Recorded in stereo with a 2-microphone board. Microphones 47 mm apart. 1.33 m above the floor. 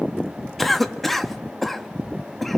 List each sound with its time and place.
0.6 s a cough: 5° left (ahead or behind), 1.6 m